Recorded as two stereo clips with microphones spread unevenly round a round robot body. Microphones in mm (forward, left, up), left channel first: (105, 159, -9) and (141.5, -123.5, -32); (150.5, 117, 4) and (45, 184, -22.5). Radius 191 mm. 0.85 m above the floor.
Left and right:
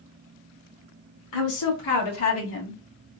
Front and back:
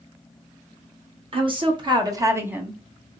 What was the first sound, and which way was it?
A woman speaking, 120° left.